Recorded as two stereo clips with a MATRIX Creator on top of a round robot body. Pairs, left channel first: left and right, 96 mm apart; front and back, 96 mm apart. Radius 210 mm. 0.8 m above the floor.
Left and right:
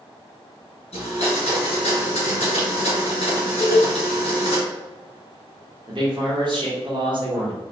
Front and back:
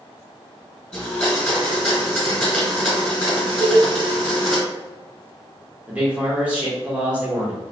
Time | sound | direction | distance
0.9 | a blender | 85° left | 1.2 m
3.6 | a cowbell | 175° left | 0.6 m
5.9 | a man speaking | 105° right | 1.6 m